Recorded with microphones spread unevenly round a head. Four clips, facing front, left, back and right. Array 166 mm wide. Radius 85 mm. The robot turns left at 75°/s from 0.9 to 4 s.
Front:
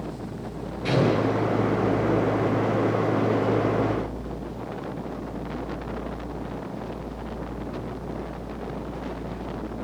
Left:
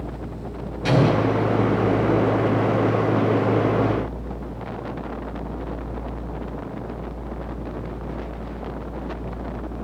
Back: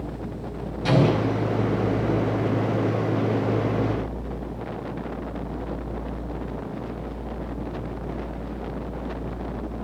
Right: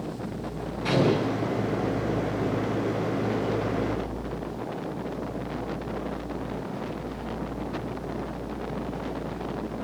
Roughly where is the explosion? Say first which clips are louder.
Left 4 dB, back 1 dB; behind.